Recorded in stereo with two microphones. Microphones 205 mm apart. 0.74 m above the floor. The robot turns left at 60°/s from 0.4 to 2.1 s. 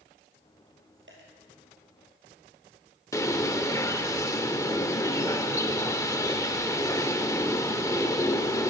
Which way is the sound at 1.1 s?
70° right (ahead or behind).